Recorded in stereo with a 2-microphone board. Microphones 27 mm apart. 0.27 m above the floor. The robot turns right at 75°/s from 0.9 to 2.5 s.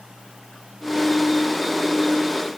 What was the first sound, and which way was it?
Only background noise.